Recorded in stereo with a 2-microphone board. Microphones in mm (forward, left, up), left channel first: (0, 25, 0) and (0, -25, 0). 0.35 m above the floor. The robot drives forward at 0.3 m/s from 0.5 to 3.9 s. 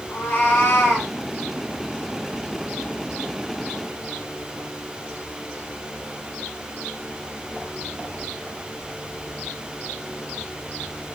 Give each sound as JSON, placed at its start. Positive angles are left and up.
{"t": 0.1, "sound": "a cat meowing", "side_deg": 50, "distance_m": 1.5}